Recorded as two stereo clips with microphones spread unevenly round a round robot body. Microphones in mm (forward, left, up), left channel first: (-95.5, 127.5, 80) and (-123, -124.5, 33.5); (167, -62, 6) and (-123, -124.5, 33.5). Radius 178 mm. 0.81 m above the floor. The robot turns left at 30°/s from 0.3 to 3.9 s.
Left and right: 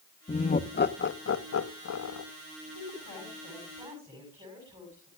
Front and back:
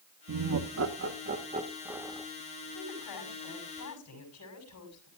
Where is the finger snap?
I don't hear a finger snap.